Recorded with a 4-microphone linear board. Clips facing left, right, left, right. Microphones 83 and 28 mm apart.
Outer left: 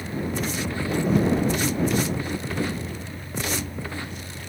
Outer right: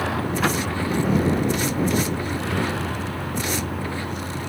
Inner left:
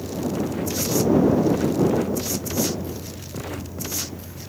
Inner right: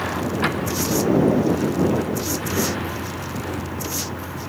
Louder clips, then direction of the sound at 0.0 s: Outer right 6 dB, inner right 4 dB; 80° right.